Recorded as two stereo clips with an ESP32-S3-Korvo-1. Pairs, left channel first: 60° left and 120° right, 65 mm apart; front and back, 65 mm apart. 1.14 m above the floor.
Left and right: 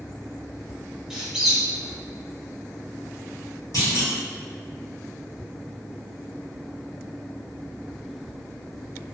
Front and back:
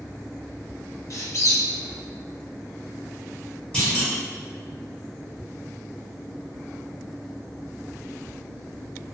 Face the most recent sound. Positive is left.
turn(degrees=70)